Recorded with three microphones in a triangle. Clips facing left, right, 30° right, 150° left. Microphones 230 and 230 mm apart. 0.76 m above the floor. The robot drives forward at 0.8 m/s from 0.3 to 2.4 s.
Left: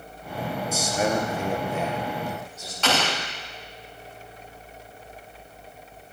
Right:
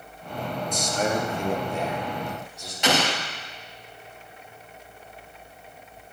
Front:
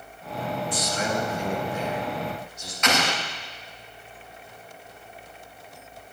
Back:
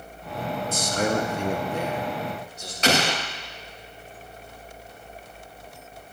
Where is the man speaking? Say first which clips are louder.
Left 1 dB, back 6 dB; 170° left, 0.6 m; by 2.7 s 175° left, 1.8 m.